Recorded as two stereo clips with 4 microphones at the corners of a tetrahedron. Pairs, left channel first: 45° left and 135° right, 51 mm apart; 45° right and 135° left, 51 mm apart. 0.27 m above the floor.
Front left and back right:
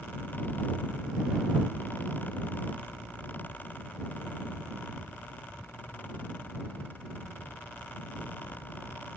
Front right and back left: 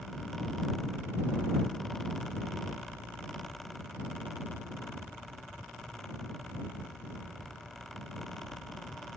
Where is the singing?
I don't hear singing.